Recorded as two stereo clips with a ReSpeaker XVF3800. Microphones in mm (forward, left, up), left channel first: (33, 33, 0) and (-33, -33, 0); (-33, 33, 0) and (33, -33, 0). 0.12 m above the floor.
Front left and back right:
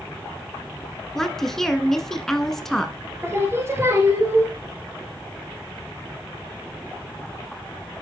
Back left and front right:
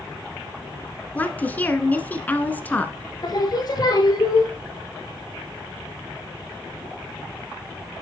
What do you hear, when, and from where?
1.1 s a woman speaking: 115° left, 1.2 m
3.2 s singing: 170° left, 2.5 m